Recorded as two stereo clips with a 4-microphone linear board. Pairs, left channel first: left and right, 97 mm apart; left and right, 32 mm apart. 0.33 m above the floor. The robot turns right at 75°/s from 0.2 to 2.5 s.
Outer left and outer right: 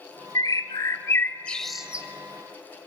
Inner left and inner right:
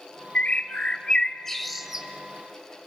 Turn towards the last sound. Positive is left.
turn(degrees=-125)